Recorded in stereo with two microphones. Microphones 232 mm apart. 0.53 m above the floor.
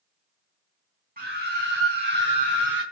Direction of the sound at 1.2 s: 40° right (ahead or behind).